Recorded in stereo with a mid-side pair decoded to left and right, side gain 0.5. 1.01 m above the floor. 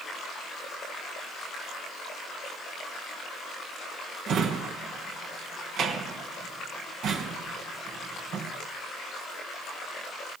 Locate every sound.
4.3 s a drawer: 65° right, 3.5 m